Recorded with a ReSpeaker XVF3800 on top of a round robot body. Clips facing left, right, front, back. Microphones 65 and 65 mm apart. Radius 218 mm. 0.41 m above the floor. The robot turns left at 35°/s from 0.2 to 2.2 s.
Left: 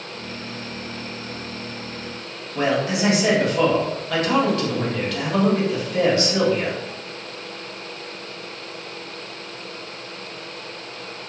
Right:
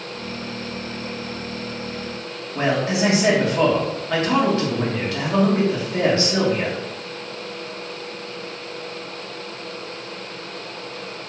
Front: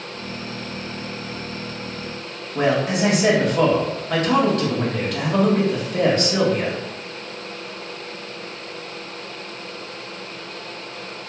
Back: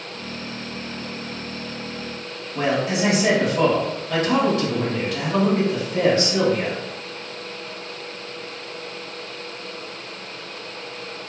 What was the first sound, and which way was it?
A man speaking, 30° right.